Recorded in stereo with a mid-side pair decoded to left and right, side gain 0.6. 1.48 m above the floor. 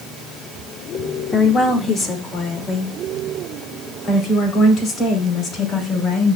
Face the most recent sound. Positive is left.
turn(degrees=45)